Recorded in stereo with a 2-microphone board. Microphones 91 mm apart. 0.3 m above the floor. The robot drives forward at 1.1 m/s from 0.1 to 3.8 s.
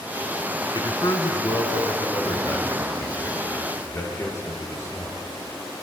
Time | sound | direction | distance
0.7 | a man speaking | 55° left (ahead or behind) | 4 m